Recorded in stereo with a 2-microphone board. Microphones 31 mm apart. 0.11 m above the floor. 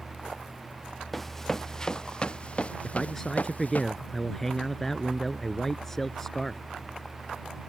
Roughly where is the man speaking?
Centre.